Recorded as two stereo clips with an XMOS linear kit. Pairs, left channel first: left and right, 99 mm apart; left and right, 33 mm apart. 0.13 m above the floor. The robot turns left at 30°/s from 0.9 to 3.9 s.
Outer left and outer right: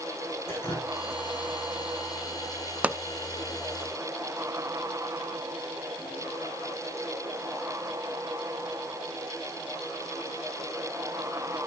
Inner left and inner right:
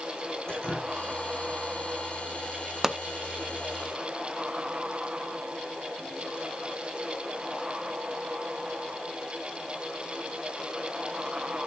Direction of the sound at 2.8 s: 15° right (ahead or behind).